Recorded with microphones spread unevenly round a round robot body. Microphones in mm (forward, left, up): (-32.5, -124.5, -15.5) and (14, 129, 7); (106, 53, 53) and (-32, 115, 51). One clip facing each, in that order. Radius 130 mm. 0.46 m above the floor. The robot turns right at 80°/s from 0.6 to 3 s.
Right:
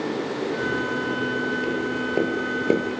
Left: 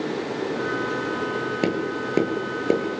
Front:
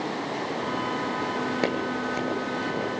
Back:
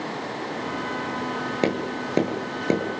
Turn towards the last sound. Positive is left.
turn(degrees=-160)